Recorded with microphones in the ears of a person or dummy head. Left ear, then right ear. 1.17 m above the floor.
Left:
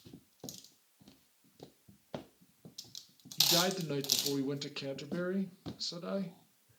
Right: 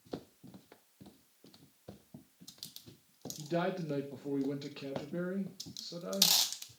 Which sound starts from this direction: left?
A man speaking, at 3.4 s.